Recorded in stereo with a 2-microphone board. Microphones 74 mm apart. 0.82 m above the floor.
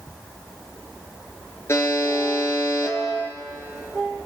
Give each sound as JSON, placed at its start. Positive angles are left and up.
{"t": 1.7, "sound": "a buzzer", "side_deg": 35, "distance_m": 3.5}